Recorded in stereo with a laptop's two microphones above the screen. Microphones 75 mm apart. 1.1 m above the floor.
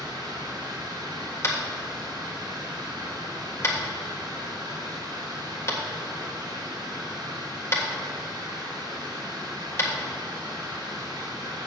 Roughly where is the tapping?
Left.